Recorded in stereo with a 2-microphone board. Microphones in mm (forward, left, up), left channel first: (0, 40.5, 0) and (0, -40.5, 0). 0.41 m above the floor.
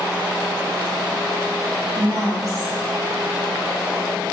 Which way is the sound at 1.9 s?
45° right (ahead or behind).